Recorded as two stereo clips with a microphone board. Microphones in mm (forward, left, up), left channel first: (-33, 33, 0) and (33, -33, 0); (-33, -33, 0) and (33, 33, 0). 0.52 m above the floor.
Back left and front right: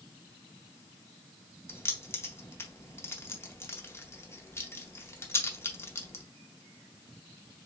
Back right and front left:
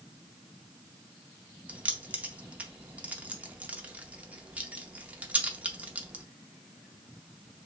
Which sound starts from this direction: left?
Keys jangling, at 1.7 s.